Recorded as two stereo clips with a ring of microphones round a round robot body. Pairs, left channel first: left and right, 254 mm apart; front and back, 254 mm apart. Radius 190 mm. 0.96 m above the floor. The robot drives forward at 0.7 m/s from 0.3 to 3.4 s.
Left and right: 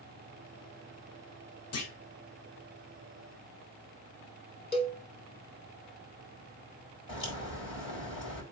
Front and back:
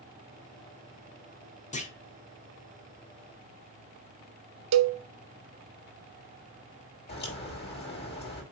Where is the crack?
50° left, 5 m.